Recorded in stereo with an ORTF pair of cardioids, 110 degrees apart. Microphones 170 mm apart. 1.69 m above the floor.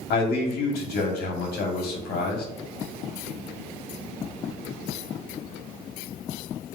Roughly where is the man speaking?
Ahead left.